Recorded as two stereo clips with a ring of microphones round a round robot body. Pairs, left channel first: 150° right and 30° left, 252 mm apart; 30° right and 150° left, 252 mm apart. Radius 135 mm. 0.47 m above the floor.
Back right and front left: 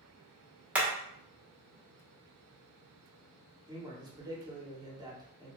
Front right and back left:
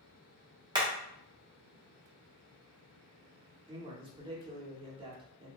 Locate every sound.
0.8 s hammering: 105° left, 0.8 m
3.7 s a man speaking: 95° left, 0.8 m